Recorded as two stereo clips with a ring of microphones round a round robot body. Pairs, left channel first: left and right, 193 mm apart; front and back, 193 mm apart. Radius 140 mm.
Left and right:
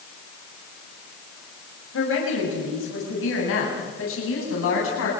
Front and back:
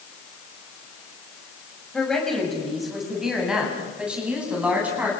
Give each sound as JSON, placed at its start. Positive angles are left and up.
{"t": 1.9, "sound": "a woman speaking", "azimuth_deg": 85, "distance_m": 6.5}